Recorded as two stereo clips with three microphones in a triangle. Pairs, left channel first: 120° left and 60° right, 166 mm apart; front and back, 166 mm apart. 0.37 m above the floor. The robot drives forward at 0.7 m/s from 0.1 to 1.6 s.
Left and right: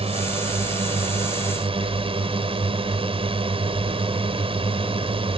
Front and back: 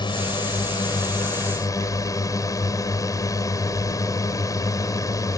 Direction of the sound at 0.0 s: 40° right.